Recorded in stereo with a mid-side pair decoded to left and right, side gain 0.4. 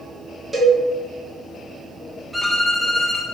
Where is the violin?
5° left, 1.4 m.